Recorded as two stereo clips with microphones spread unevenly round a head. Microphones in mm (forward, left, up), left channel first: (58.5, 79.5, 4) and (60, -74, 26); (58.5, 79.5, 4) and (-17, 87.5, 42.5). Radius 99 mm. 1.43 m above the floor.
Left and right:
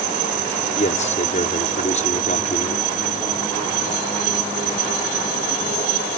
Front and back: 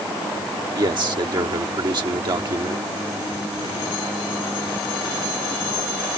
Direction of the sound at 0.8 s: 150° left.